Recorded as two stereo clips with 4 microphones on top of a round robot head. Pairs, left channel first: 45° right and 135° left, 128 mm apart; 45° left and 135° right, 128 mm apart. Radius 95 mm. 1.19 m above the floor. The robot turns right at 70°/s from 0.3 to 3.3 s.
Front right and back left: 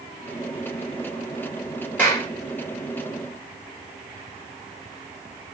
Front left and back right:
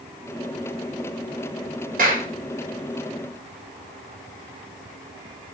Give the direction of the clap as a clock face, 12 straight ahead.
4 o'clock.